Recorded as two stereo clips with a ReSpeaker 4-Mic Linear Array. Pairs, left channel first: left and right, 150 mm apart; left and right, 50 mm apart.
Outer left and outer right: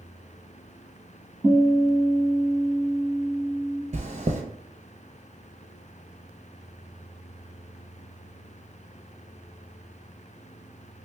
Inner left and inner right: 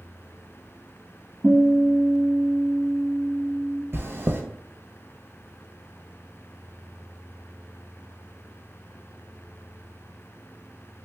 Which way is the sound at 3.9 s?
50° right (ahead or behind).